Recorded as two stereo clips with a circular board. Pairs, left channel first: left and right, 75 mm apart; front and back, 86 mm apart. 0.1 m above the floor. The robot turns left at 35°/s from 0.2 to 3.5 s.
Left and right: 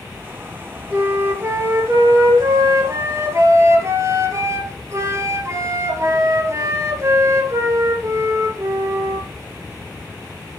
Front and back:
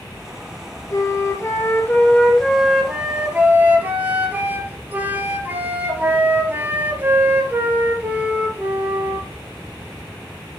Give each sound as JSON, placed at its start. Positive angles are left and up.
{"t": 0.9, "sound": "a flute", "azimuth_deg": -30, "distance_m": 2.0}